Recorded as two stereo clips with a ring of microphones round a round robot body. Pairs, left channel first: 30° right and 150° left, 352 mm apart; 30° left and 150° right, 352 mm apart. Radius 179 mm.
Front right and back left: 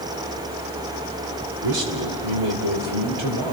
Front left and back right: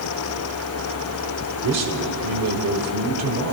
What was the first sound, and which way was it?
A man speaking, 160° left.